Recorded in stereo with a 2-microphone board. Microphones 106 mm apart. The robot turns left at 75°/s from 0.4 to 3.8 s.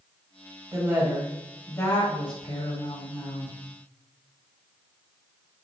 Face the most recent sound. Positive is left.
turn(degrees=-15)